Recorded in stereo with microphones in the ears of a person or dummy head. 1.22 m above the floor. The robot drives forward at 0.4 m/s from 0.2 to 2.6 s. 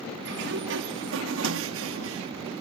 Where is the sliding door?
60° right (ahead or behind); by 2.3 s 80° right.